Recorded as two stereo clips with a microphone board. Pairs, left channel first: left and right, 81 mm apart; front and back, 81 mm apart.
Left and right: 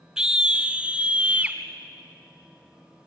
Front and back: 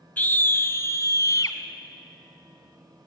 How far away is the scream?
About 1.0 m.